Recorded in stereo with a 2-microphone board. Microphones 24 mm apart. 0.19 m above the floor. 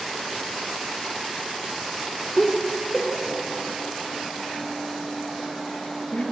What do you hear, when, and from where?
2.4 s laughter: 5° left (ahead or behind), 2.5 m; by 6.2 s 55° left (ahead or behind), 4.5 m